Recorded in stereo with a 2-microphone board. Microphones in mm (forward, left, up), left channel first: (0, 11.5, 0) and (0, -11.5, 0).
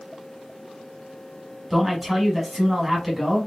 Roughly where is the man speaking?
Centre.